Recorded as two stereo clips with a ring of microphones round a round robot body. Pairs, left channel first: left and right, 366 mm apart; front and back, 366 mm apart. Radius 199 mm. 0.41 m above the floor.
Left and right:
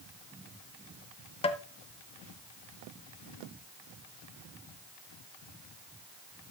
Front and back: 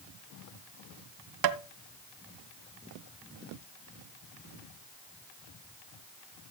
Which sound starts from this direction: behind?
Tapping, at 1.4 s.